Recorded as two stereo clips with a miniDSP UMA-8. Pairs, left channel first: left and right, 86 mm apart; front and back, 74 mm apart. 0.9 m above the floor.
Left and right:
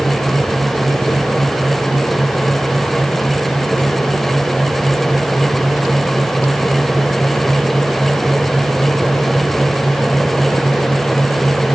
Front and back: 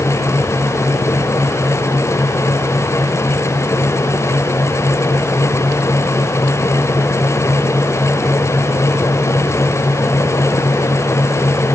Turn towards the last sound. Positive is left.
No sound to turn to.